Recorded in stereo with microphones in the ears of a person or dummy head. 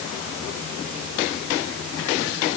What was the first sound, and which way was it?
Only background noise.